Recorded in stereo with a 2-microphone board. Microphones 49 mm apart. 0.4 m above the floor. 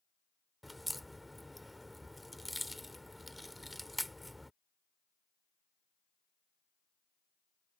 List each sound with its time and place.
0.6 s a crack: centre (ahead or behind)